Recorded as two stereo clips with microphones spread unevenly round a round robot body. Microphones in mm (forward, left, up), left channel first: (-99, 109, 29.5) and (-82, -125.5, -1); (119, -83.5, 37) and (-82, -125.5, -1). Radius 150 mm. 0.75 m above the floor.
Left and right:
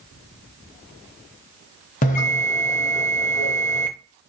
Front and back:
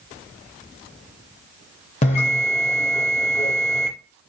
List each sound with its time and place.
2.0 s a bell: 55° left, 0.6 m